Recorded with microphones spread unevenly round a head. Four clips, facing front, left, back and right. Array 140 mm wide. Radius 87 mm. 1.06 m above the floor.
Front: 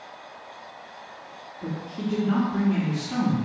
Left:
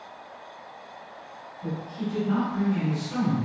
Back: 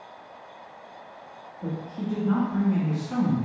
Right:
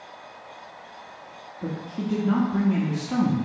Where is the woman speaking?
85° right, 1.4 m.